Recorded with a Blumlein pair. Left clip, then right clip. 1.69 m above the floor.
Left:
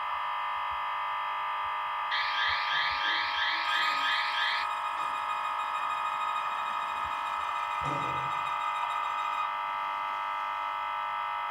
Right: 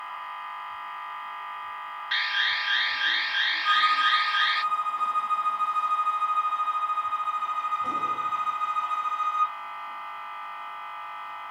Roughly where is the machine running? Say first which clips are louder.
Left 4 dB; ahead left.